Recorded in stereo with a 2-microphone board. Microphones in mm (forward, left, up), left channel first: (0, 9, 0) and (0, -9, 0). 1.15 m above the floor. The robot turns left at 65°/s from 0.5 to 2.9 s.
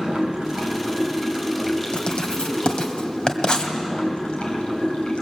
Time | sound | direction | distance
0.0 | running water | 90° right | 4.5 m
1.9 | writing | 55° left (ahead or behind) | 2 m